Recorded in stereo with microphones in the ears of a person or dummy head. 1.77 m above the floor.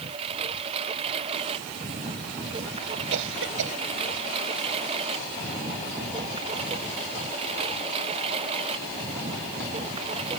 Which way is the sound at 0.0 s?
30° right (ahead or behind).